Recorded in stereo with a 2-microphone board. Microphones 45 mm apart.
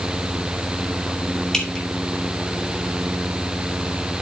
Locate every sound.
1.5 s dripping: 15° left (ahead or behind), 2.0 m